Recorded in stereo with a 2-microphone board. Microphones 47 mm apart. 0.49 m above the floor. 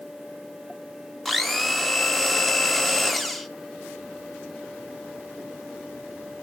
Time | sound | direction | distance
1.2 | a blender | centre (ahead or behind) | 0.5 m